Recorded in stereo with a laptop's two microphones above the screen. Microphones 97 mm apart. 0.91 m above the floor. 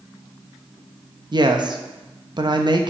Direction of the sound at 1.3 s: 50° right (ahead or behind).